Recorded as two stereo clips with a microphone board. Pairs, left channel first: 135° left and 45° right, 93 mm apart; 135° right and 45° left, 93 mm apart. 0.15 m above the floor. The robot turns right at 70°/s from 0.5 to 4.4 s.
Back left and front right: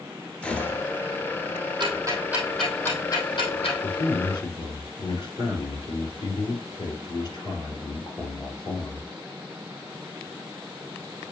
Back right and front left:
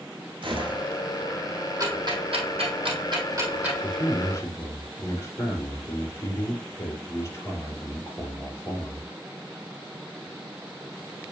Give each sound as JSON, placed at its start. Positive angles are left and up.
{"t": 0.4, "sound": "a gunshot", "azimuth_deg": 60, "distance_m": 1.5}
{"t": 1.8, "sound": "ticking", "azimuth_deg": -15, "distance_m": 3.0}
{"t": 3.8, "sound": "a man speaking", "azimuth_deg": 125, "distance_m": 3.0}